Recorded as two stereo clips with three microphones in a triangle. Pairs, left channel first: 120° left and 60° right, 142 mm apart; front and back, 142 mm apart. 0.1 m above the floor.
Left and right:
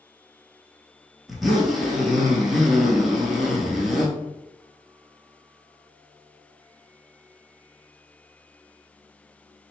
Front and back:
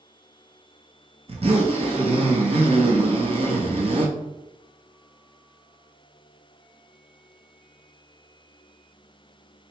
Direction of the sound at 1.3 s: 150° right.